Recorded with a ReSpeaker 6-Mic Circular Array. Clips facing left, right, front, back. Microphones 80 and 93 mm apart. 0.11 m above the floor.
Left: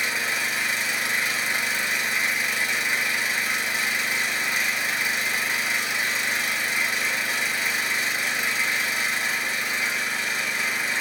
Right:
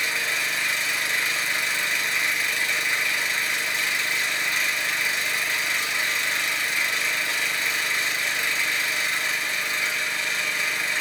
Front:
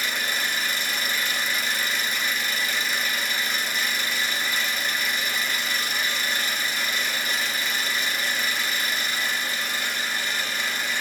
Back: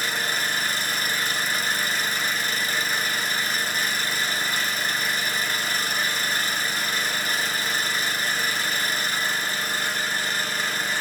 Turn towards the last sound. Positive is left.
turn(degrees=160)